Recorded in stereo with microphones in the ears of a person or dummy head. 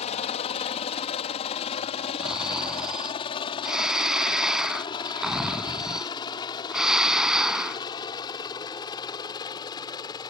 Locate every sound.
0.0 s a helicopter: 35° left (ahead or behind); by 10.3 s 20° left (ahead or behind)
2.2 s snoring: centre (ahead or behind)